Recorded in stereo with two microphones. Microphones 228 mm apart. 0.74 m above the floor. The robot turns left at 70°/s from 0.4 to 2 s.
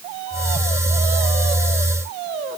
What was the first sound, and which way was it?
Only background noise.